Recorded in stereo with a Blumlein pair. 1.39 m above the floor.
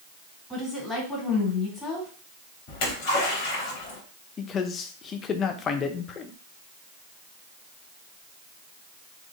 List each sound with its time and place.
0.5 s a woman speaking: 5° left, 2.5 m
2.7 s a splash: 45° left, 2 m
4.4 s a man speaking: 25° left, 0.7 m